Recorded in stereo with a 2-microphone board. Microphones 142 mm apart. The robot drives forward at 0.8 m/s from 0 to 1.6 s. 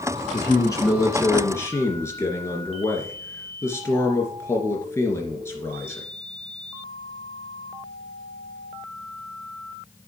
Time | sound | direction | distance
0.3 | a man speaking | 30° left (ahead or behind) | 1.6 m